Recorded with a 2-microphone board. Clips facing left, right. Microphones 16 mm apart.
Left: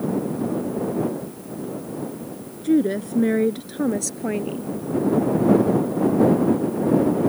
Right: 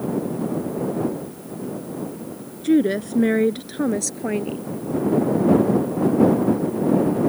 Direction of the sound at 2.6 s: 30° right (ahead or behind).